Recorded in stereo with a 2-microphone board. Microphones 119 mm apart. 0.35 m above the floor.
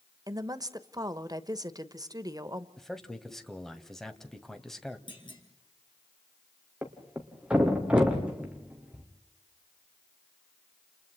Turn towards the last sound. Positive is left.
turn(degrees=-10)  # may be behind; listen again after turning